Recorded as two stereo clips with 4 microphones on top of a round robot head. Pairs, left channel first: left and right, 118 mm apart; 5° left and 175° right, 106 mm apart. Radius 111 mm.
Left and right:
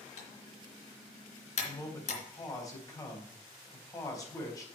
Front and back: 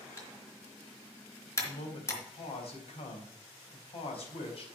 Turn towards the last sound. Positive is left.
turn(degrees=30)